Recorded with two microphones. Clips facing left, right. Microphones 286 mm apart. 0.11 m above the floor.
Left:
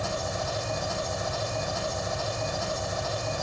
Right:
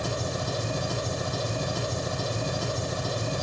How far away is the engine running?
About 2.5 m.